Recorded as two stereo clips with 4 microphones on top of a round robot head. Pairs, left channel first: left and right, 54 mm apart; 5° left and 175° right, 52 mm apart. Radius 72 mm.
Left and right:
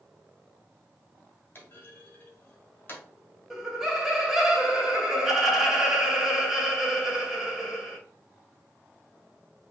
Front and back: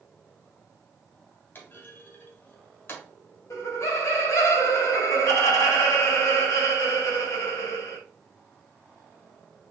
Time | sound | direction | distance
1.6 | a clunk | 40° left | 2 m
3.5 | laughter | 5° right | 2.5 m